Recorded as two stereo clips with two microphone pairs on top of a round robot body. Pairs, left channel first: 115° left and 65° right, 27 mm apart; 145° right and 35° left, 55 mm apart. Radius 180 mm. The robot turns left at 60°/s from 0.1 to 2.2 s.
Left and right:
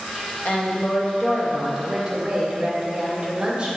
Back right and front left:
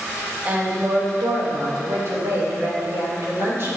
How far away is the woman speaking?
About 3.5 m.